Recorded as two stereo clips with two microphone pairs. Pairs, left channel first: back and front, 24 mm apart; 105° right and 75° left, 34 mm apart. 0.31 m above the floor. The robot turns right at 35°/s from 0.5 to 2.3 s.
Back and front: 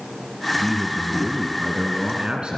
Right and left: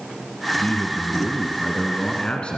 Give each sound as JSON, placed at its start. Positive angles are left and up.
{"t": 0.6, "sound": "a man speaking", "azimuth_deg": -110, "distance_m": 2.5}